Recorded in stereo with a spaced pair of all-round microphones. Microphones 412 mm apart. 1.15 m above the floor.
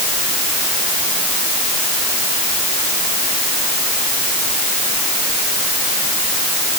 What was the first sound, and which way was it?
Only background noise.